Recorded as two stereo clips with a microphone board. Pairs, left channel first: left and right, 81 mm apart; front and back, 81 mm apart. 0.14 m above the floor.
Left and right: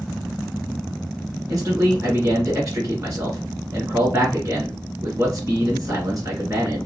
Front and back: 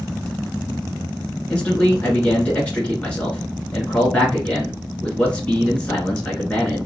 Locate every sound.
1.5 s a man speaking: 70° right, 1.9 m